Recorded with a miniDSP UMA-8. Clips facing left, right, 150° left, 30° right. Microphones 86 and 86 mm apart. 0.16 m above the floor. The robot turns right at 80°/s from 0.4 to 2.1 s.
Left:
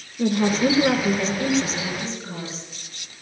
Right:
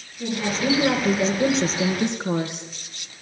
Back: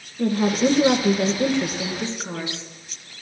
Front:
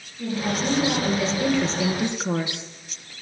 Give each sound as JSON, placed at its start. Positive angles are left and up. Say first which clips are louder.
{"t": 0.2, "sound": "a woman speaking", "louder": "left 5 dB, back 6 dB", "azimuth_deg": 125, "distance_m": 2.5}